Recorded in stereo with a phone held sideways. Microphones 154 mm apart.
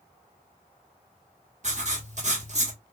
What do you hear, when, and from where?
1.6 s writing: 50° right (ahead or behind), 1.1 m